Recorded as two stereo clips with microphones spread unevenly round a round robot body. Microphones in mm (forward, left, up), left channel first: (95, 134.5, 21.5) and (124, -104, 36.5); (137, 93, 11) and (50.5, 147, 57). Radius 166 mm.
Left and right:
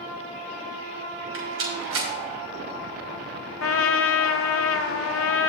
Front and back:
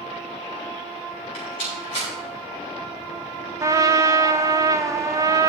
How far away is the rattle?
About 4.5 m.